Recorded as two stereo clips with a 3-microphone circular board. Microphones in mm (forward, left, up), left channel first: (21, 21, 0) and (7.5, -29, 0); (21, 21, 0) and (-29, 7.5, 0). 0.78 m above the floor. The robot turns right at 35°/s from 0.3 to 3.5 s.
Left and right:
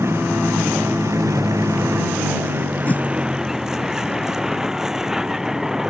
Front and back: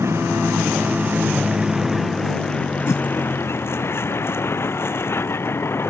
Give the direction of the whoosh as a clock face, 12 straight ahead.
11 o'clock.